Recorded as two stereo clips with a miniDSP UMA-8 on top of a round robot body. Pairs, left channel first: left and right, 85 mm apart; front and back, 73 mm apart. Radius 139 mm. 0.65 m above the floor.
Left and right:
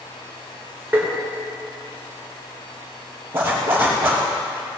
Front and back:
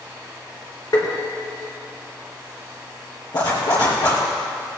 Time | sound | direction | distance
0.9 | tapping | 20° right | 3.5 m
3.3 | a zipper | 25° right | 4 m